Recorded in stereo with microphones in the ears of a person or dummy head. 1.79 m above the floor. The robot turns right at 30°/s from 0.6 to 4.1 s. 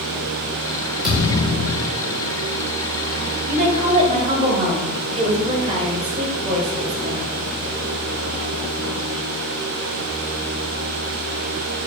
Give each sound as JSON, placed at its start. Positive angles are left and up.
{"t": 1.0, "sound": "a thud", "side_deg": 0, "distance_m": 1.8}
{"t": 3.5, "sound": "a woman speaking", "side_deg": -50, "distance_m": 1.1}